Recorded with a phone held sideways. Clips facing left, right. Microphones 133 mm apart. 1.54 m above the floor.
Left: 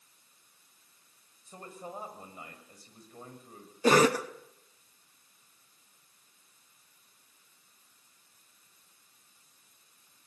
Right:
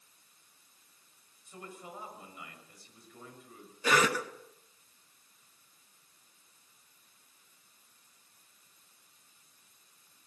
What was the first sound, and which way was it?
A man speaking, 40° left (ahead or behind).